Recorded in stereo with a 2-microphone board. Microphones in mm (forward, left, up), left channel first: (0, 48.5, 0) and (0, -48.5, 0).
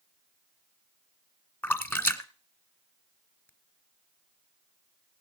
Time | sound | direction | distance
1.6 | a splash | 20° left (ahead or behind) | 1.1 m